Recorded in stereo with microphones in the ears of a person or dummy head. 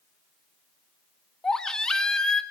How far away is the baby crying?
About 1.0 m.